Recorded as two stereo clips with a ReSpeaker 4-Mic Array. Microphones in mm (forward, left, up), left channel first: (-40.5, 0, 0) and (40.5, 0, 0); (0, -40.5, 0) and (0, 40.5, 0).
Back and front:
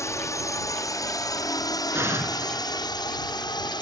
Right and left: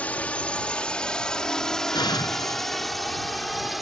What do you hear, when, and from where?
0.0 s a drone: 155° right; by 3.8 s straight behind
1.9 s an explosion: 60° right